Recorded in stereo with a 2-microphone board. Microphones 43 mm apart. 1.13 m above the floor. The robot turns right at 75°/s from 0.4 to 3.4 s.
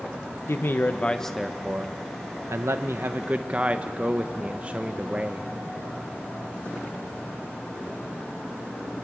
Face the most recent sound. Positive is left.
turn(degrees=-30)